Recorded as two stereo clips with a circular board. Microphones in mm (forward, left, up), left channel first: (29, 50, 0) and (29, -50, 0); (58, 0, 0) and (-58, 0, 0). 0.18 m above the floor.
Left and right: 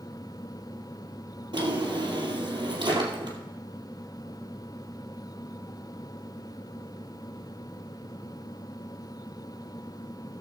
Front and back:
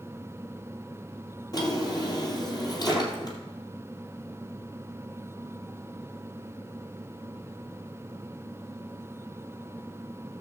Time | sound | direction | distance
1.5 | a drawer | 50° right | 2.5 m